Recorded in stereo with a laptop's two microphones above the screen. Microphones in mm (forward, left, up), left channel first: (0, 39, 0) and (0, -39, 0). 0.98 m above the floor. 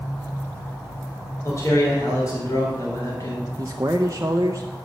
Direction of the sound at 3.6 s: 40° right (ahead or behind).